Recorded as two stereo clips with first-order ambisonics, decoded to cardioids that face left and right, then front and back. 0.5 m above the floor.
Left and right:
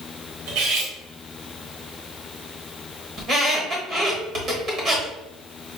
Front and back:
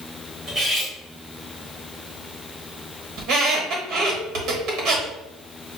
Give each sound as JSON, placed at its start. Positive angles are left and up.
{"t": 0.5, "sound": "cutlery clinking", "azimuth_deg": -105, "distance_m": 1.1}
{"t": 3.2, "sound": "a squeak", "azimuth_deg": -145, "distance_m": 1.2}